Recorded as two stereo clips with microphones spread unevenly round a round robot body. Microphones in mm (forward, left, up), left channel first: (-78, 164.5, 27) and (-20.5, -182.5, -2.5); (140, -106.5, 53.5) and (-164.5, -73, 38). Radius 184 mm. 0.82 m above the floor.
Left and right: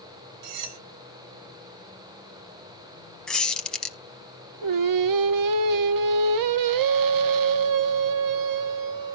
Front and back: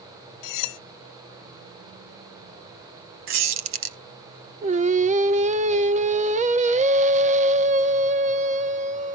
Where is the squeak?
Straight behind, 0.8 m.